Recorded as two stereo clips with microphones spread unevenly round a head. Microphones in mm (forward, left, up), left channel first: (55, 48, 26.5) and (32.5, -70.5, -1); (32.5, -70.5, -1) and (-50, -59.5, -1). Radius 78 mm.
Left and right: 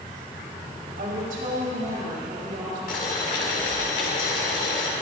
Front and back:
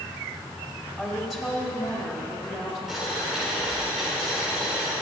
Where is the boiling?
85° left, 2.0 m.